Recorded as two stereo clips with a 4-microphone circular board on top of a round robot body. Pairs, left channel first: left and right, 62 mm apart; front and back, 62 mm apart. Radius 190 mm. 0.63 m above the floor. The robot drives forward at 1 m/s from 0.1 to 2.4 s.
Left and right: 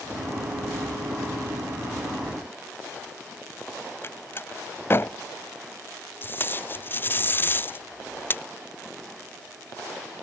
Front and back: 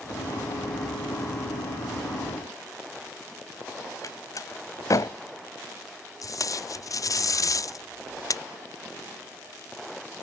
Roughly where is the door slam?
Ahead left.